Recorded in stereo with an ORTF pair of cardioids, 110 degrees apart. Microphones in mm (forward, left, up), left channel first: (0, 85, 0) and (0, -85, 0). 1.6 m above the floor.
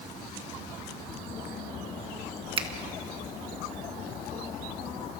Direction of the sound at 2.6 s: 30° right.